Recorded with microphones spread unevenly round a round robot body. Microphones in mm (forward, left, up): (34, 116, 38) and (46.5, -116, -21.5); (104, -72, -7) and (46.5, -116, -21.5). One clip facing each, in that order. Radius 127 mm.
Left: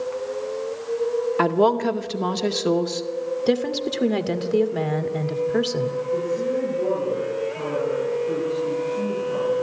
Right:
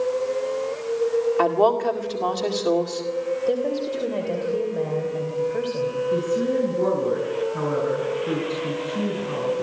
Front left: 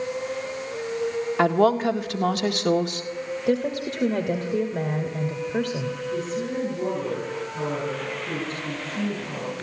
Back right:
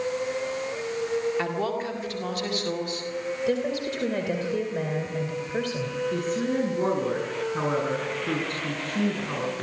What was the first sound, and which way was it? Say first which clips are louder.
A woman speaking: left 1 dB, front left 8 dB; 30° left.